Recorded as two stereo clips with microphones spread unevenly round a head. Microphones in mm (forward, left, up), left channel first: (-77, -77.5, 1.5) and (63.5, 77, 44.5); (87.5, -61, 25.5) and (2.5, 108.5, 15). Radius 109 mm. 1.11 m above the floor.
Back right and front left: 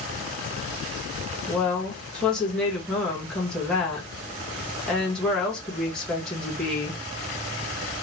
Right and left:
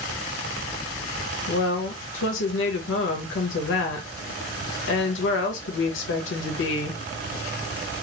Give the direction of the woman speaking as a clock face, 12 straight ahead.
2 o'clock.